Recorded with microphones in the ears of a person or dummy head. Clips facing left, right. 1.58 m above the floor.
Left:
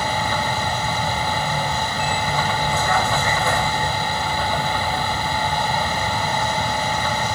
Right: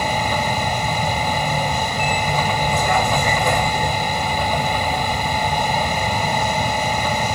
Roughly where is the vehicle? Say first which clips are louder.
Right 2 dB; centre.